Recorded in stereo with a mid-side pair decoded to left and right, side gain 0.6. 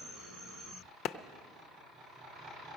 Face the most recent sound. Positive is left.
turn(degrees=65)